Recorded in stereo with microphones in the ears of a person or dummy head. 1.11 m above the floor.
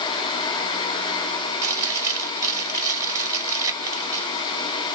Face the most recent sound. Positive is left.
turn(degrees=-20)  # may be behind; listen again after turning